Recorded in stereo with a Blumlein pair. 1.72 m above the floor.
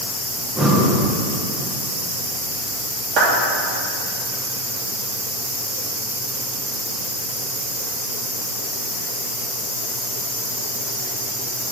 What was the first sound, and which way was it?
Breathing, 15° right.